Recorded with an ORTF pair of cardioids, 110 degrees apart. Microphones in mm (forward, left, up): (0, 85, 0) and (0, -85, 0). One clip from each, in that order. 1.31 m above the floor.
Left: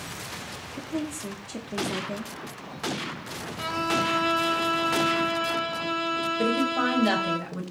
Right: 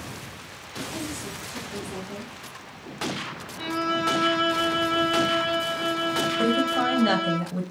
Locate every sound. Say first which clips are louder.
0.7 s a woman speaking: right 1 dB; 60° left, 0.7 m
3.6 s a violin: even; 15° left, 0.6 m
6.4 s a woman speaking: right 1 dB; 5° right, 1.1 m